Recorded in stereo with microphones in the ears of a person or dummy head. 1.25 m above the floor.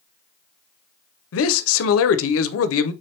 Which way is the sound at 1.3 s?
80° left.